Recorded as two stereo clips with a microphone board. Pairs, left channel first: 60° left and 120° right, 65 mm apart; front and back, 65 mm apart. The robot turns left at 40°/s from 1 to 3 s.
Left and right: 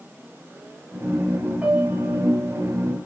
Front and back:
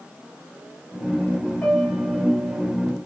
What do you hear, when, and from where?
1.6 s a piano: 65° right, 1.8 m; by 2.6 s 105° right, 1.8 m